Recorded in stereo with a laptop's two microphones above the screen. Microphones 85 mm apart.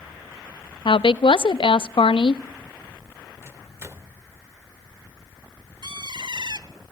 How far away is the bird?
About 1.4 m.